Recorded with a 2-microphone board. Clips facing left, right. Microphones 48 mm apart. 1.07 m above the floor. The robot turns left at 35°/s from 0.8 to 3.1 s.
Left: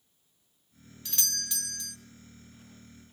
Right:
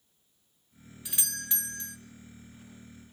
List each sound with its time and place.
1.1 s a doorbell: 25° right, 0.6 m; by 2.0 s 60° right, 0.6 m